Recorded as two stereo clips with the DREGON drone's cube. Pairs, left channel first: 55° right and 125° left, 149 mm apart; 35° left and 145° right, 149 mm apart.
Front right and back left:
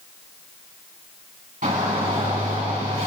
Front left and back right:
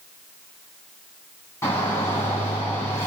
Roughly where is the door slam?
I don't hear a door slam.